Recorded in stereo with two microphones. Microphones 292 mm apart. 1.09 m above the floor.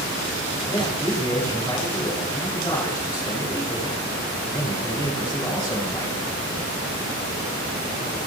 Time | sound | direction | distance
0.7 | a man speaking | 15° left (ahead or behind) | 6.5 m